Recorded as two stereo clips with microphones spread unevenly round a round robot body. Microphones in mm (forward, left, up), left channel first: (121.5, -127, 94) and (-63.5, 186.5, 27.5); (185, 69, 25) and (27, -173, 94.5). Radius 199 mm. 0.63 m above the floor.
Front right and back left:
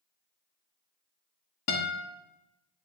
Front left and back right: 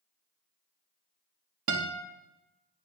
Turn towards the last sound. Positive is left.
turn(degrees=-105)